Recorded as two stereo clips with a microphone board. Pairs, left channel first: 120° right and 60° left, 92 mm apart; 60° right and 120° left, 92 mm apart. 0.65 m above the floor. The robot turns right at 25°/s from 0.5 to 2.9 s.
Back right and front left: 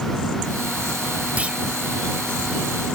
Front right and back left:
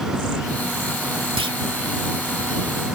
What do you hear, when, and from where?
1.4 s a clunk: 135° left; by 1.6 s 140° left